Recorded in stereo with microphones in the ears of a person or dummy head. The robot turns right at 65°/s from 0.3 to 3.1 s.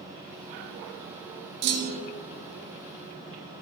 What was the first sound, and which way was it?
A clunk, 75° right.